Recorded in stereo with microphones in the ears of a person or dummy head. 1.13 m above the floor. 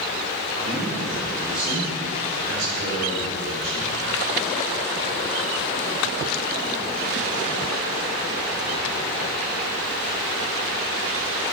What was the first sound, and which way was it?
A man speaking, 35° right (ahead or behind).